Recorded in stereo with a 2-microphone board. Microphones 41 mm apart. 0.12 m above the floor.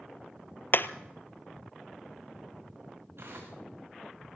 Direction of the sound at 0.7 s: 55° left (ahead or behind).